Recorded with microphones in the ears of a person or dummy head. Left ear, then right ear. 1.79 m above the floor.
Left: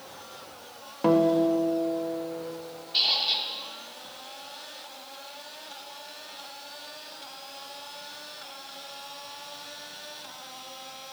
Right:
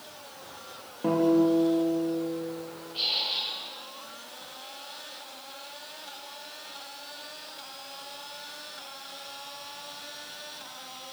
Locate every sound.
1.0 s a guitar: 55° left (ahead or behind), 1.6 m
2.9 s a squeak: 55° left (ahead or behind), 2 m